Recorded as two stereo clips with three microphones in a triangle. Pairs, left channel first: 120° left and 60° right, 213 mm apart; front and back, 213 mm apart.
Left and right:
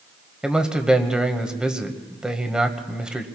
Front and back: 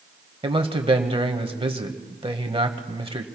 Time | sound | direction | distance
0.4 | a man speaking | 145° right | 1.2 m